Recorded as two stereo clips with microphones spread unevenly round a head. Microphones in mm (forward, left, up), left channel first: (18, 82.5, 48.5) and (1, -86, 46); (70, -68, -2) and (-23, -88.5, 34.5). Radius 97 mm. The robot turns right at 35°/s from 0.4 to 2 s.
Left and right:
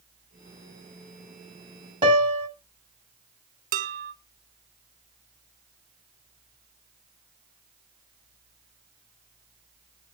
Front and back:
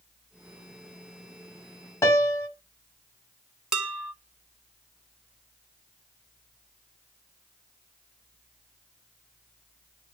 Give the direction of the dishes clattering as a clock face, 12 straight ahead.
4 o'clock.